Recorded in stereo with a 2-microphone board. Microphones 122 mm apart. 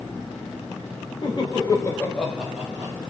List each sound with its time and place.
1.2 s laughter: 35° left (ahead or behind), 1.1 m; by 3.0 s 25° right (ahead or behind), 0.9 m